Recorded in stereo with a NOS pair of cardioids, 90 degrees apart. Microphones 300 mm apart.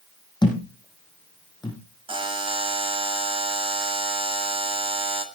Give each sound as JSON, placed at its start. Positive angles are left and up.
{"t": 0.4, "sound": "a thud", "azimuth_deg": 15, "distance_m": 6.0}
{"t": 2.1, "sound": "a buzzer", "azimuth_deg": -15, "distance_m": 2.0}